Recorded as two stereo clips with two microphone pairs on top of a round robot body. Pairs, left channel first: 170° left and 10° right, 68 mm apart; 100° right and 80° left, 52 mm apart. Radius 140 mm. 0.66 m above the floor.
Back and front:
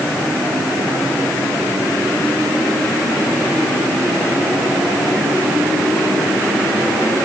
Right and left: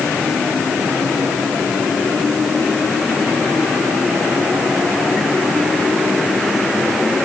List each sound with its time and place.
Only background noise.